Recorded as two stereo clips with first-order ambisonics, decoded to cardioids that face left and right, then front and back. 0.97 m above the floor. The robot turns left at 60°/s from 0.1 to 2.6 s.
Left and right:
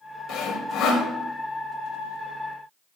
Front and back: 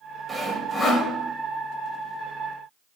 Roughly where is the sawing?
Left.